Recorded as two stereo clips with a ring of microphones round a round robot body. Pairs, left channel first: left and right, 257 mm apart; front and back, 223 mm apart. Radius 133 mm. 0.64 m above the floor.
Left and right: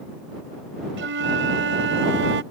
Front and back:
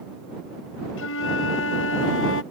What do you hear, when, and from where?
1.0 s a flute: 40° right